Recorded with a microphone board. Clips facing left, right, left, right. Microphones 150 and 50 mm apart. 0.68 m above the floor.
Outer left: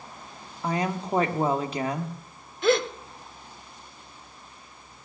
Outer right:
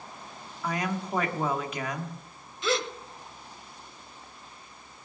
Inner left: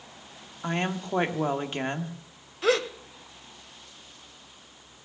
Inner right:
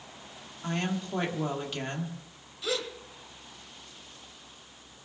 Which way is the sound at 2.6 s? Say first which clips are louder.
Outer left 7 dB, inner left 9 dB; 55° left (ahead or behind).